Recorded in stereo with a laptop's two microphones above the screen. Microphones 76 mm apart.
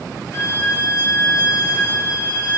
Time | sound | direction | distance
0.3 | a violin | 40° left (ahead or behind) | 5 m